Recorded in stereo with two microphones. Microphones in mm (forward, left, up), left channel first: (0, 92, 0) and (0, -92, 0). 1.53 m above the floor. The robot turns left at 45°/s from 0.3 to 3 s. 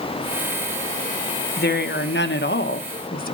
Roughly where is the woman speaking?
Behind left.